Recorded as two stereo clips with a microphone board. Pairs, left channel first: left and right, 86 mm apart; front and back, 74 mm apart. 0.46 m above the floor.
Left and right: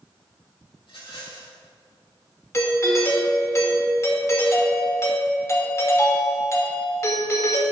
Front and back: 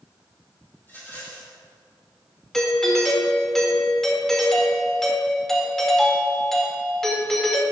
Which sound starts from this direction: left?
A doorbell, at 2.5 s.